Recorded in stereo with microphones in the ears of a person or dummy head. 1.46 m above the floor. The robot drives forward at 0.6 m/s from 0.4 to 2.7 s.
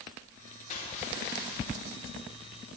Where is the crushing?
40° left (ahead or behind), 1.3 m; by 1.7 s 65° left (ahead or behind), 0.9 m.